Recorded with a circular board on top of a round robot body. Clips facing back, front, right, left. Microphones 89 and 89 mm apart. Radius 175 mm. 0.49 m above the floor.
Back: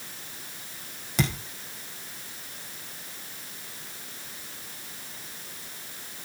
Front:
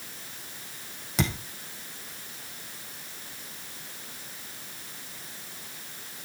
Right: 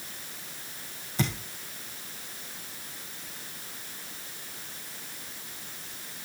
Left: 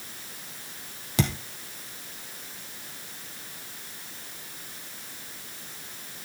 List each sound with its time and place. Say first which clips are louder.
1.2 s a thud: back 1 dB, left 3 dB; 90° left, 3 m